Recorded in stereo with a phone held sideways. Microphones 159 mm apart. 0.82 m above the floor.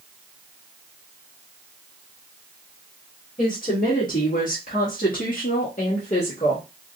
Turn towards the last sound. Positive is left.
turn(degrees=35)  # may be behind; listen again after turning